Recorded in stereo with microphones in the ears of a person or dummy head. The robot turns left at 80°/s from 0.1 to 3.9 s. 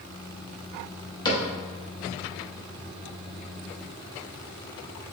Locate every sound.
1.2 s a cupboard door: 25° left (ahead or behind), 0.6 m; by 1.5 s 40° left (ahead or behind), 0.6 m